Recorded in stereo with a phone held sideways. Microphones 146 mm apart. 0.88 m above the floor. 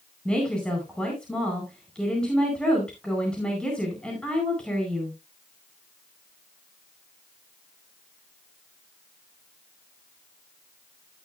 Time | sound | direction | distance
0.2 | a woman speaking | 5° left (ahead or behind) | 4.5 m